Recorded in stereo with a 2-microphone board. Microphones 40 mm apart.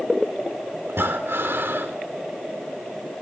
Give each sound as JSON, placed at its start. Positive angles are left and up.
{"t": 0.9, "sound": "breathing", "side_deg": -75, "distance_m": 3.5}